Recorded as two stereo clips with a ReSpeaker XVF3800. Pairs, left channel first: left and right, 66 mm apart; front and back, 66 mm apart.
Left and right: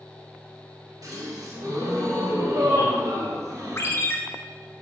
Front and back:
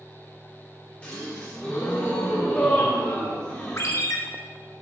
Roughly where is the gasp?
Right.